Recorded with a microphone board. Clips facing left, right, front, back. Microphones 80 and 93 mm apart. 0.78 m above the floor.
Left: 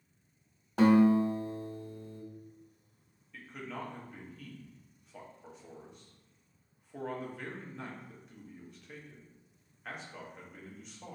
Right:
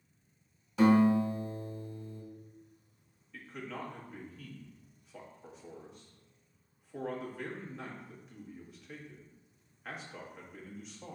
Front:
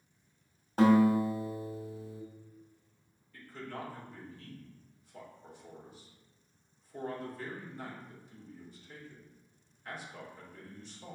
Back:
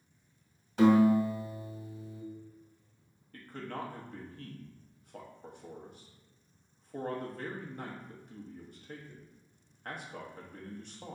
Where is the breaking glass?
No breaking glass in this recording.